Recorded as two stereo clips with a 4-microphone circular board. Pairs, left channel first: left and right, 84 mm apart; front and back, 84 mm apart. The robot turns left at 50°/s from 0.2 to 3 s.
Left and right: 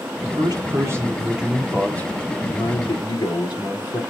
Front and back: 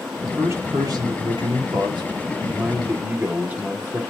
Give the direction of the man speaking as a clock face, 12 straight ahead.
4 o'clock.